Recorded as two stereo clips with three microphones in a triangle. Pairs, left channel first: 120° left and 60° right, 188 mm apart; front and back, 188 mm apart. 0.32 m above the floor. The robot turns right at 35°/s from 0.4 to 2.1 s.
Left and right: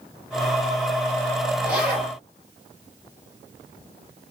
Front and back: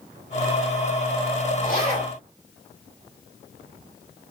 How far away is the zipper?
About 2.5 m.